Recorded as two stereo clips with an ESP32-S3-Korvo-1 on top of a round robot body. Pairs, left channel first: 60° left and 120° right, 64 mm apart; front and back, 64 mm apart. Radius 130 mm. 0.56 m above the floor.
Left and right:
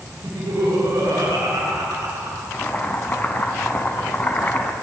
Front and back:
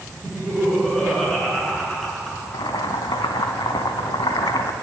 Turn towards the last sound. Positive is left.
turn(degrees=-5)